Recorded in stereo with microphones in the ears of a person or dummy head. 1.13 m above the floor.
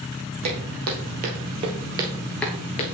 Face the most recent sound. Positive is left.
turn(degrees=30)  # may be behind; listen again after turning